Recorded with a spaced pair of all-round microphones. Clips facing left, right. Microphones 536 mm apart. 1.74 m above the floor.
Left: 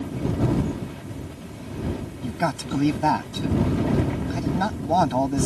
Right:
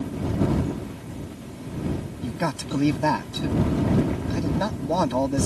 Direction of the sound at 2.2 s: 5° left (ahead or behind).